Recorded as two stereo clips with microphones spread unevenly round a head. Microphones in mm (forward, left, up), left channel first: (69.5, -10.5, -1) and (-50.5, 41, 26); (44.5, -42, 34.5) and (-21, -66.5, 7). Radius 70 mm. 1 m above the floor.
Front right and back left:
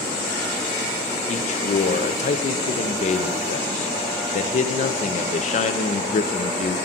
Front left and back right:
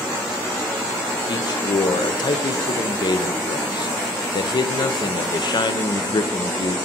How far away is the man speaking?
About 0.5 m.